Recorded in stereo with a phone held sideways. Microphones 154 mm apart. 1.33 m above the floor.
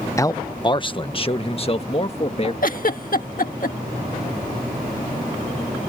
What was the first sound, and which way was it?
A man speaking, 20° left (ahead or behind).